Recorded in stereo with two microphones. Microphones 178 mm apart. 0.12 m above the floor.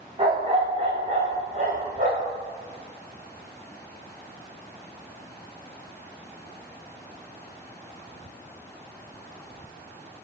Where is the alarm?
No alarm in this recording.